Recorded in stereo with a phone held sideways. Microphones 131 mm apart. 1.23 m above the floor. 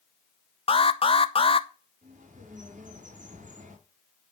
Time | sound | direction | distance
0.7 | an alarm | 45° left (ahead or behind) | 0.8 m
2.0 | a bird | 75° right (ahead or behind) | 4.5 m